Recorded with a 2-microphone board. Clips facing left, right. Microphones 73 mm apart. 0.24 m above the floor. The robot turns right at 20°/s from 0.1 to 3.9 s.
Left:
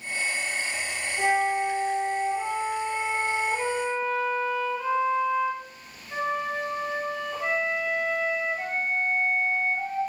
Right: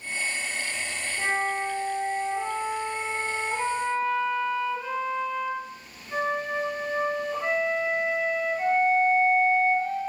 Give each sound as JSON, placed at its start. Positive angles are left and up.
{"t": 1.2, "sound": "a flute", "azimuth_deg": 120, "distance_m": 2.0}